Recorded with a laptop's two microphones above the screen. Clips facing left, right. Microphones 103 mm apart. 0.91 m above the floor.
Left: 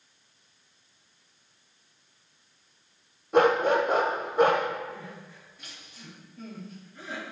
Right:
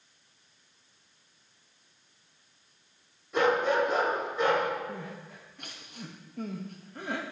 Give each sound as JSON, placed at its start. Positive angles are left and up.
{"t": 3.3, "sound": "a dog barking", "side_deg": 50, "distance_m": 1.6}
{"t": 4.9, "sound": "crying", "side_deg": -55, "distance_m": 1.1}